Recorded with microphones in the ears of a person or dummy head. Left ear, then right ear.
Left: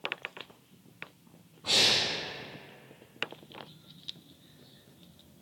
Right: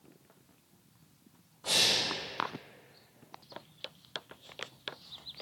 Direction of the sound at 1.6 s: 60° right (ahead or behind).